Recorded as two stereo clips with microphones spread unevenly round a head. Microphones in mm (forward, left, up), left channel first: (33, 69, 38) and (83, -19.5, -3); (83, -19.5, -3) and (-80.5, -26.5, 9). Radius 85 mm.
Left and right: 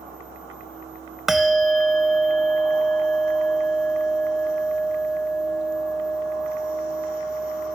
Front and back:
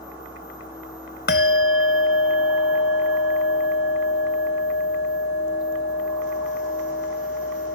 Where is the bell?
40° left.